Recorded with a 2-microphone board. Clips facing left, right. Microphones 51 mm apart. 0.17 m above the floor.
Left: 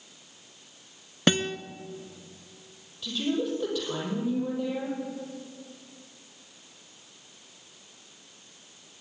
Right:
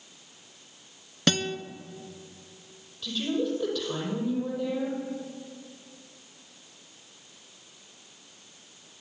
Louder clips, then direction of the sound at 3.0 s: Even; 5° left (ahead or behind).